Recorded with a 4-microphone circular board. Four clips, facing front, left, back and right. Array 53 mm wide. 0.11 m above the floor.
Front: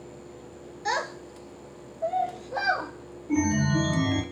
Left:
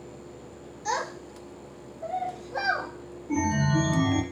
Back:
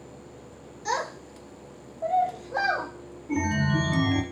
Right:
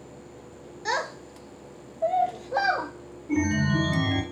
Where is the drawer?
I don't hear a drawer.